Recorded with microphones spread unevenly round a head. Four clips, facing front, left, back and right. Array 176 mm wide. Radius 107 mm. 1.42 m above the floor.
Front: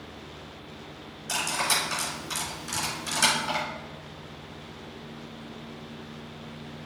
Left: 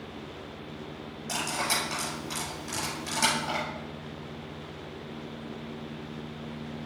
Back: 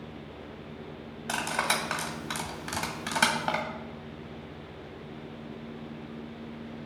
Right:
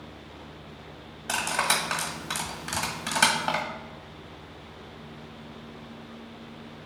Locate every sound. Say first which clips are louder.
1.3 s cutlery clinking: right 4 dB, even; 125° right, 1.3 m